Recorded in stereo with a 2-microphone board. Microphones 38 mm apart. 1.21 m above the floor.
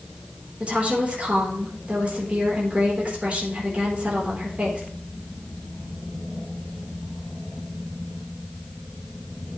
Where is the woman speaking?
35° right (ahead or behind), 4 m.